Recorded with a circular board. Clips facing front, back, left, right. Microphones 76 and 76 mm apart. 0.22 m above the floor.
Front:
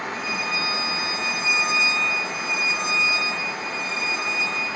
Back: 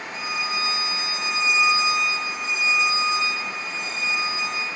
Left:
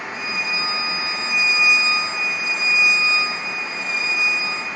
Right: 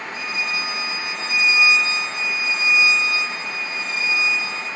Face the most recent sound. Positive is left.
turn(degrees=40)